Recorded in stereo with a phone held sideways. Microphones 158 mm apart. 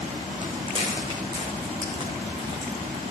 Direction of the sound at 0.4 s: 35° right (ahead or behind).